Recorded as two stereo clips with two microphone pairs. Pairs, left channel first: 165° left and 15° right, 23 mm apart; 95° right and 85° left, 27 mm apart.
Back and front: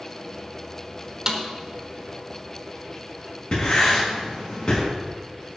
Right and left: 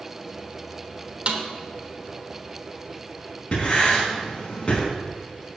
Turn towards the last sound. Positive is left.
turn(degrees=-150)